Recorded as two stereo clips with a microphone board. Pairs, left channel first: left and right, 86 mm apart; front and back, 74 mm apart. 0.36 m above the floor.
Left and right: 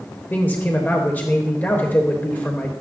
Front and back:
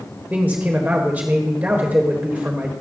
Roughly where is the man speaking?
Behind left.